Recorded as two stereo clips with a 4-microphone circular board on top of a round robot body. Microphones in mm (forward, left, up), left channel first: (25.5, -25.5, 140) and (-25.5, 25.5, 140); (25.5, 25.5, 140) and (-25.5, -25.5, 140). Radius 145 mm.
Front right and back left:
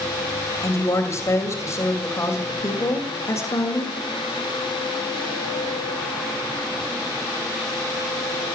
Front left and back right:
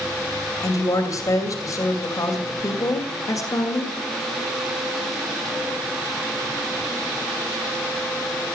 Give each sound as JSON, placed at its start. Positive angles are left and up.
{"t": 0.6, "sound": "a woman speaking", "azimuth_deg": 5, "distance_m": 2.5}